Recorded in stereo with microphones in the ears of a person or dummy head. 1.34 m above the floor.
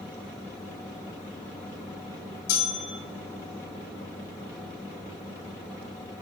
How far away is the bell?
About 2.5 m.